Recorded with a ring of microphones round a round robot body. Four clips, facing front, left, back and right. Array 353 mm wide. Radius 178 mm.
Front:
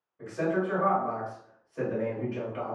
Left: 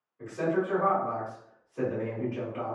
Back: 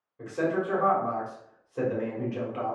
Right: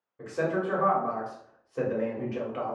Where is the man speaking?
125° right, 1.4 m.